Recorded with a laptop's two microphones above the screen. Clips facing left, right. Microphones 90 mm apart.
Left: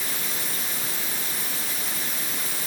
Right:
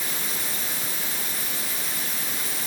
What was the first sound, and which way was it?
Only background noise.